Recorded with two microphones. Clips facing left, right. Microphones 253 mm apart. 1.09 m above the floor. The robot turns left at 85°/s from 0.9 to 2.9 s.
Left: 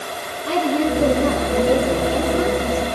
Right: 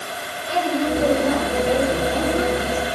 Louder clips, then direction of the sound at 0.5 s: Left 3 dB; 105° left.